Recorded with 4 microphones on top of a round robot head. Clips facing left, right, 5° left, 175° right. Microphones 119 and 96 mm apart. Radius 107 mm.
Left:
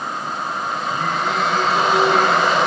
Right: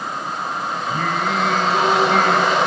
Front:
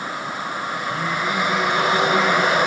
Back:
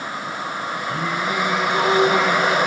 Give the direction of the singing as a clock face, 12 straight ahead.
4 o'clock.